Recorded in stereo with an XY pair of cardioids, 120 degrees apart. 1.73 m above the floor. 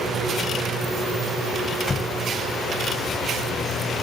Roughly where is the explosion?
Ahead left.